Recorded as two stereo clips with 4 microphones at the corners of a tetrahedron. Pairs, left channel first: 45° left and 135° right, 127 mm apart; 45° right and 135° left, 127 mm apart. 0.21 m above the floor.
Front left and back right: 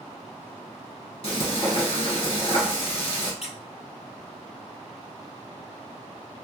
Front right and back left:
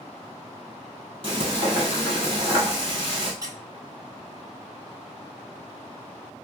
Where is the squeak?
70° left, 0.5 m.